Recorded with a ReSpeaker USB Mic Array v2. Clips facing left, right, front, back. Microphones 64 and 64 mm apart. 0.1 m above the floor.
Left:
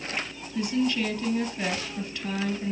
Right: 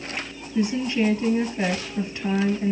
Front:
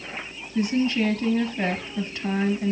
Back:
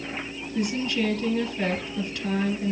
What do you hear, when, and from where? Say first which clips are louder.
0.6 s a woman speaking: right 3 dB, front 4 dB; 60° right, 1.1 m